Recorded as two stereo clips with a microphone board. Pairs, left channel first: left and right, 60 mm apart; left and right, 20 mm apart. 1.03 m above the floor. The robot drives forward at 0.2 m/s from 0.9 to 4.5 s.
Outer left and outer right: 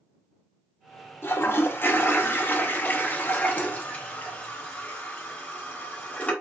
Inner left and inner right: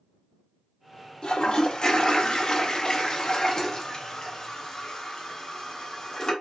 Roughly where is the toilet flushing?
Left.